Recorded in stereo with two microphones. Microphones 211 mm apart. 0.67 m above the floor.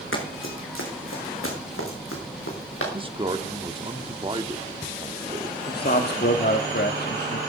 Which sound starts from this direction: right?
A man speaking, at 2.9 s.